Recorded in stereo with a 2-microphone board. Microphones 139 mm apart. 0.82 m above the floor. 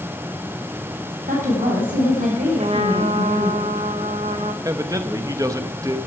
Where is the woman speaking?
80° right, 6.5 m.